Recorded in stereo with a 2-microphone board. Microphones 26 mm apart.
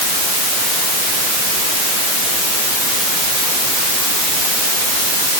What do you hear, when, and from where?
Only background noise.